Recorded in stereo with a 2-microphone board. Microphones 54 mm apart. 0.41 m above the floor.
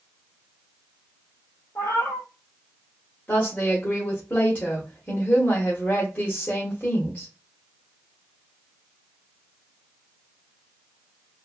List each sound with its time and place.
1.8 s a cat meowing: 60° left (ahead or behind), 1.0 m
3.3 s a woman speaking: 35° left (ahead or behind), 0.9 m